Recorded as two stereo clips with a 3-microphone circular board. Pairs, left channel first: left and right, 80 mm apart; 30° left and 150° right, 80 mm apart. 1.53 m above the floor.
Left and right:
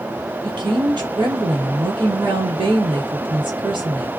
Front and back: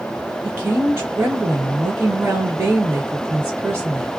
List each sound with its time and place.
0.4 s a woman speaking: 95° right, 1.4 m